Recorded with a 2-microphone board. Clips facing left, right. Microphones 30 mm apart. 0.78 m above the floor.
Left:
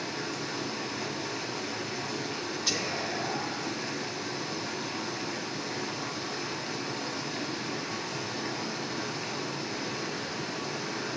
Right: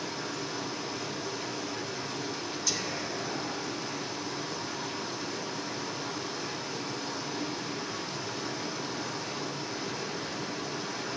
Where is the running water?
70° left (ahead or behind), 2 m.